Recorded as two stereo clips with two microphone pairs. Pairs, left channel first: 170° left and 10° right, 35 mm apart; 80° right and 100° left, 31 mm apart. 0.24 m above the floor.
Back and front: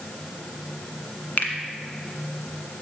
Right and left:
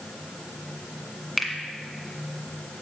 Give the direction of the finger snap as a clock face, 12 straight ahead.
5 o'clock.